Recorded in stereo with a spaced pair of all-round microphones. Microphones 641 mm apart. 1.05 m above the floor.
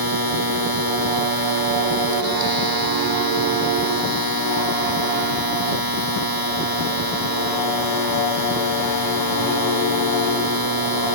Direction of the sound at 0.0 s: 35° right (ahead or behind).